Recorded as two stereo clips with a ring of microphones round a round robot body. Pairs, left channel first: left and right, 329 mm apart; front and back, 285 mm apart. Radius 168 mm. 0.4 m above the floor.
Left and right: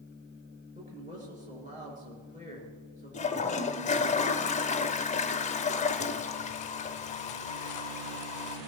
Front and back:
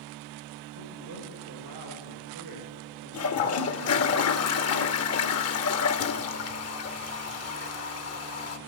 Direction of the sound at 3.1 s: 25° left.